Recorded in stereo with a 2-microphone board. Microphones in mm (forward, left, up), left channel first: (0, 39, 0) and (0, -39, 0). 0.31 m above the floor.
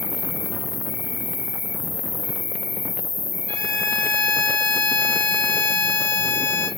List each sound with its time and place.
0.0 s an insect: 35° right (ahead or behind), 2.5 m
3.5 s a violin: 20° left (ahead or behind), 1.6 m